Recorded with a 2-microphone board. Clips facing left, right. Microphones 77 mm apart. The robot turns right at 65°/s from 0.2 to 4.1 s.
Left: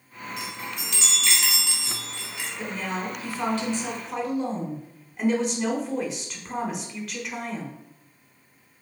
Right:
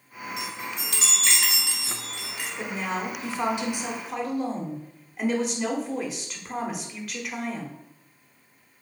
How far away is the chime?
About 1.4 m.